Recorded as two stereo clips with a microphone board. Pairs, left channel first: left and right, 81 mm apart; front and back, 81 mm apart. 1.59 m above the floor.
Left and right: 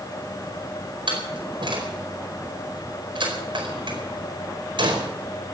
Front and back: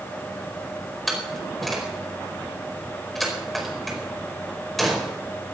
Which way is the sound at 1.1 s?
90° right.